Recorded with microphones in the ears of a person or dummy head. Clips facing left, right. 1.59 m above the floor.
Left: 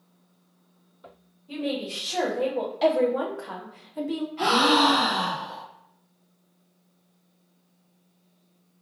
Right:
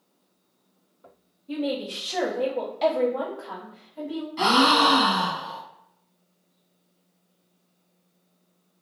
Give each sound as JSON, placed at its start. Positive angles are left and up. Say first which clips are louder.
{"t": 1.5, "sound": "a woman speaking", "louder": "right 2 dB", "side_deg": -10, "distance_m": 1.2}
{"t": 4.4, "sound": "a gasp", "louder": "right 1 dB", "side_deg": -80, "distance_m": 1.1}